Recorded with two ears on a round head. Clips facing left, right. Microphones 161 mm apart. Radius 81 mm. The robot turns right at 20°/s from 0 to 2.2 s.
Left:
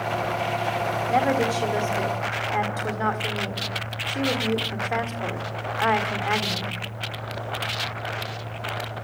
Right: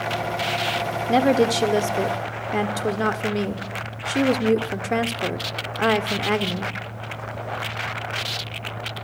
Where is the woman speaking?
45° right (ahead or behind), 1.7 m.